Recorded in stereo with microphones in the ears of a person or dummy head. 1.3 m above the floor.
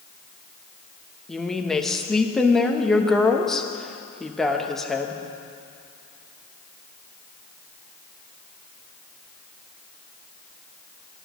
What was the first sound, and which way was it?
A woman speaking, 5° left (ahead or behind).